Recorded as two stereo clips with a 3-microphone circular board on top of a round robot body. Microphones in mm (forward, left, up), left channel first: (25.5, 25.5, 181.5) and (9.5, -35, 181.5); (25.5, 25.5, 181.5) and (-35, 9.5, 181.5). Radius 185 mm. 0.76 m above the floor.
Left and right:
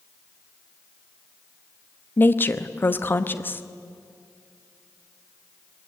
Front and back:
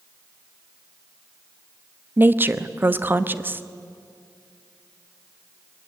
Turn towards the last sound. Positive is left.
turn(degrees=135)